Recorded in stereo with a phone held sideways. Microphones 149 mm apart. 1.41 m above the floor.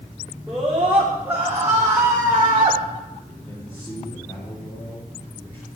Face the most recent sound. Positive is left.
turn(degrees=15)  # may be behind; listen again after turning